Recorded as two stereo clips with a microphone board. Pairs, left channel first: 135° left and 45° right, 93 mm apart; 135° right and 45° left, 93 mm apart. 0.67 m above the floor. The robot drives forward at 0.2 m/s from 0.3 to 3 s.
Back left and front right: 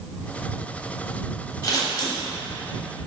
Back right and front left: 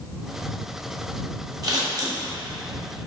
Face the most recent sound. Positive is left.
turn(degrees=105)